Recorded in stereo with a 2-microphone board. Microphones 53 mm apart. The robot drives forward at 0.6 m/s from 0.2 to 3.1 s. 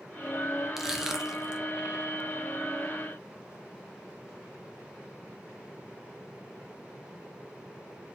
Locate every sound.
0.8 s crushing: 10° right (ahead or behind), 0.7 m